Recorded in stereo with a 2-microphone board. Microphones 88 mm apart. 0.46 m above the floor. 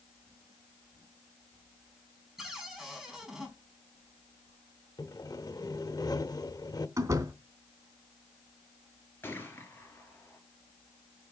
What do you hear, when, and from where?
2.4 s a cupboard door: 5° right (ahead or behind), 4 m
5.0 s sawing: 45° left (ahead or behind), 1.0 m
7.0 s a door slam: 40° right (ahead or behind), 3 m
9.2 s a gunshot: 25° left (ahead or behind), 3.5 m